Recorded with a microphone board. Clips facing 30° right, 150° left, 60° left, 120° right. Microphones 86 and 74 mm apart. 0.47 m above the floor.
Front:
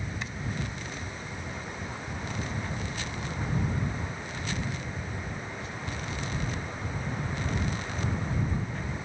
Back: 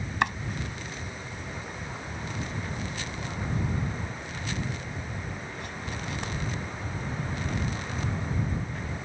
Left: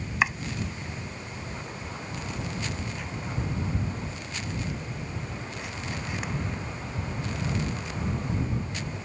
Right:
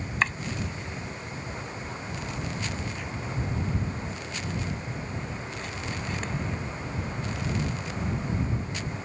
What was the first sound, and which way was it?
Chopping, 140° left.